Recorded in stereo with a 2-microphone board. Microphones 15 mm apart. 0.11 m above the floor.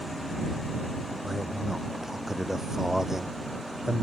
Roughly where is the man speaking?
Right.